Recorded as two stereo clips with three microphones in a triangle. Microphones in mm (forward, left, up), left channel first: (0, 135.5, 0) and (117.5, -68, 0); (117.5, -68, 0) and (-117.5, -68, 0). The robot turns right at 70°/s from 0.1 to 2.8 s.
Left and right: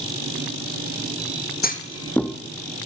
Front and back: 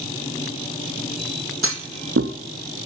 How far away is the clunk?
About 0.7 m.